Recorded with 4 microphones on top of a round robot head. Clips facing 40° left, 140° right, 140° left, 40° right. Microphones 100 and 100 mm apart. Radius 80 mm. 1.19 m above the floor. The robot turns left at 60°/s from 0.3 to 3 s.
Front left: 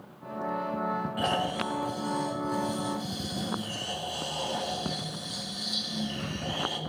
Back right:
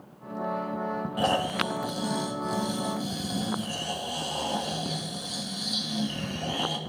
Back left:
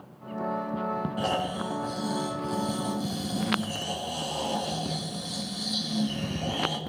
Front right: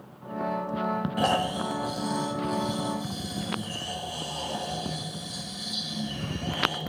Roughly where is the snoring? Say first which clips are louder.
Back right 5 dB, front right 5 dB; right.